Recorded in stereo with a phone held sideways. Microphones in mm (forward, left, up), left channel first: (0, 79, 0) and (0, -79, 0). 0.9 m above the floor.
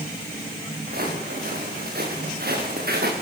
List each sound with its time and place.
0.9 s footsteps: 80° right, 8 m